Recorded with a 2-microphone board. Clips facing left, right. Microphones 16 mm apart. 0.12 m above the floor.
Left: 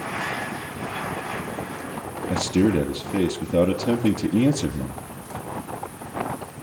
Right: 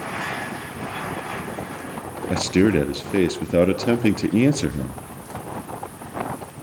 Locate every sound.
2.3 s a man speaking: 40° right (ahead or behind), 1.9 m